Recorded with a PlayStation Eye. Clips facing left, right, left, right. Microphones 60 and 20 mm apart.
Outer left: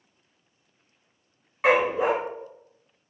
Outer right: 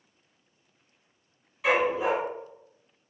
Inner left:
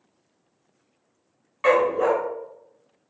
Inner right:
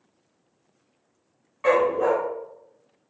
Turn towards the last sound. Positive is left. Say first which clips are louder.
# outer left 3 dB, inner left 1 dB
turn(degrees=55)  # may be behind; listen again after turning